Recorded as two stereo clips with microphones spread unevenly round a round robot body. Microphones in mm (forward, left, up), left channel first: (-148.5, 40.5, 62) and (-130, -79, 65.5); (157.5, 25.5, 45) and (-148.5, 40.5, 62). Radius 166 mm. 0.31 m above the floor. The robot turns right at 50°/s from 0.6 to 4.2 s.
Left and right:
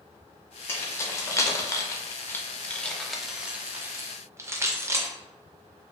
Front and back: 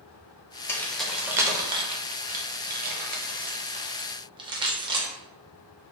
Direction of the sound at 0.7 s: 65° left.